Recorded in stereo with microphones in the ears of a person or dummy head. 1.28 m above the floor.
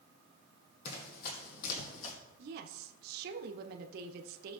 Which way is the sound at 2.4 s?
65° right (ahead or behind).